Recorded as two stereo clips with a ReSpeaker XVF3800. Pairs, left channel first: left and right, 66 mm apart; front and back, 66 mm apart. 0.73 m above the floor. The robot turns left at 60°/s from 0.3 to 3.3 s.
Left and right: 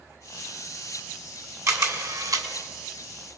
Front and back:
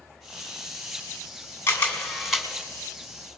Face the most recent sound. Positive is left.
turn(degrees=-150)